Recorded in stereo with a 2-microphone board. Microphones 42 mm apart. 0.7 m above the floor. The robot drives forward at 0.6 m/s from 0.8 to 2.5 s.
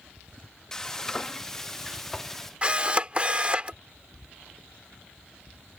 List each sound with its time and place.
0.7 s frying: 10° left (ahead or behind)
2.6 s a camera shutter: 25° right (ahead or behind)